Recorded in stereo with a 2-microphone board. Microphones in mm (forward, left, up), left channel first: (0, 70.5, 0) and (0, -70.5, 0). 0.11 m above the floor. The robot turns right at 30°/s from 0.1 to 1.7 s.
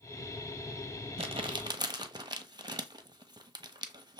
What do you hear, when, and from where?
1.2 s crumpling: 45° right (ahead or behind), 0.7 m; by 4.2 s 30° right (ahead or behind), 0.7 m